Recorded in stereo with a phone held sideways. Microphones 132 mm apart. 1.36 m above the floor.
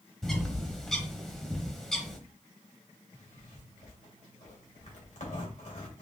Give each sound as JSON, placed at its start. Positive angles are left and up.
{"t": 0.2, "sound": "a bird", "side_deg": 5, "distance_m": 1.0}
{"t": 3.1, "sound": "a zipper", "side_deg": 65, "distance_m": 2.0}